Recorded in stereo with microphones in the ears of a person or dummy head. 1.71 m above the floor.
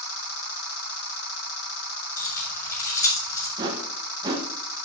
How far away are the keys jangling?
About 7.5 m.